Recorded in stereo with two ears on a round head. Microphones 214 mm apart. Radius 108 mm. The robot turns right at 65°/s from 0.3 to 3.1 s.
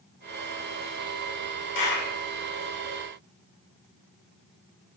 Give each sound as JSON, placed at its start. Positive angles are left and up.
{"t": 1.8, "sound": "a clap", "side_deg": 50, "distance_m": 3.5}